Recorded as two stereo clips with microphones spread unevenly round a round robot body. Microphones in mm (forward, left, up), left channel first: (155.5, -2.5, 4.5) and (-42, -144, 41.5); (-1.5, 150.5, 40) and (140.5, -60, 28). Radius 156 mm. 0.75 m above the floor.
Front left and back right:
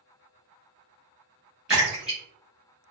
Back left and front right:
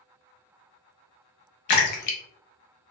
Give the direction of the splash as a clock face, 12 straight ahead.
8 o'clock.